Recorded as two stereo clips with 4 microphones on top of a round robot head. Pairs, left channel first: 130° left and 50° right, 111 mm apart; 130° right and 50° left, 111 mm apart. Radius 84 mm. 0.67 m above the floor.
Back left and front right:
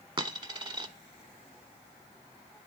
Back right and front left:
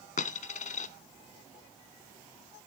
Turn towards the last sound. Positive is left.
turn(degrees=-105)